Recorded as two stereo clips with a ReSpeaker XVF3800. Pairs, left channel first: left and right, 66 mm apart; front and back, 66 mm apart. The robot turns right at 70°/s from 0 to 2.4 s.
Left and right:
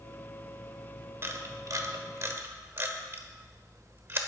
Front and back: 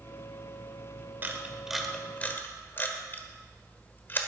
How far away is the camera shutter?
About 1.4 m.